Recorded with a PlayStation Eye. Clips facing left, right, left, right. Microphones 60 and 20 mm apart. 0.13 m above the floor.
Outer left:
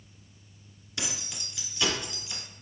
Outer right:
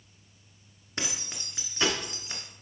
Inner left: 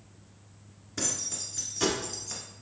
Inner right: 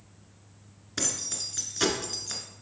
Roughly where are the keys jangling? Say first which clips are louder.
Outer right 1 dB, inner right 1 dB; right.